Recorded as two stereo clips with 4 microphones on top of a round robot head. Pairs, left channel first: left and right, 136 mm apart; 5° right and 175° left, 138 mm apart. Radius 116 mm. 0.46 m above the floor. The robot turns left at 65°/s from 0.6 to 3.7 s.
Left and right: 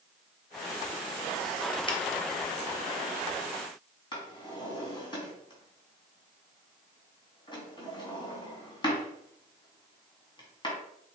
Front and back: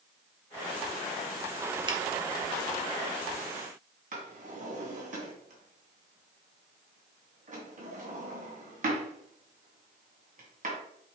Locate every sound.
1.9 s a finger snap: 130° left, 1.3 m; by 2.0 s 125° left, 1.3 m
4.1 s a drawer: 145° left, 2.5 m